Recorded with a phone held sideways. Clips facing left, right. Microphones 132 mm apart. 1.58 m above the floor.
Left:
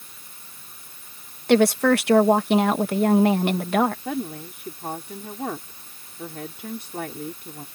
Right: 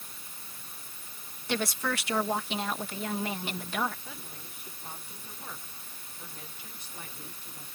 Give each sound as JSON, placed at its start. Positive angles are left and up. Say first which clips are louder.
{"t": 1.5, "sound": "a woman speaking", "louder": "left 15 dB", "side_deg": 60}
{"t": 4.0, "sound": "a woman speaking", "louder": "left 18 dB", "side_deg": 65}